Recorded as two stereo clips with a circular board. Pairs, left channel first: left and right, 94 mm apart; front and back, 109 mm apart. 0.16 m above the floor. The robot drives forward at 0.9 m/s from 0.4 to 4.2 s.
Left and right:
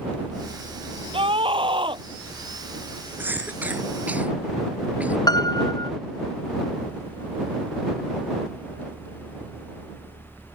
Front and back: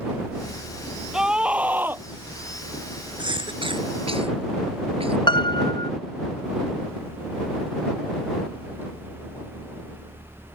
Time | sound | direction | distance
1.1 | a scream | 95° right | ?
3.2 | a cough | 155° right | ?
5.3 | a piano | 45° left | ?